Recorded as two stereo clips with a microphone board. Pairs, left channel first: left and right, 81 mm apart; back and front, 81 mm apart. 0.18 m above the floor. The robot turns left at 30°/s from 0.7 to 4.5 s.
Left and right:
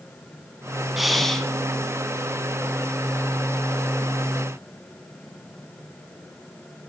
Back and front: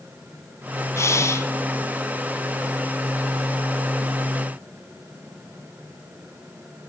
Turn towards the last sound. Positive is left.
turn(degrees=80)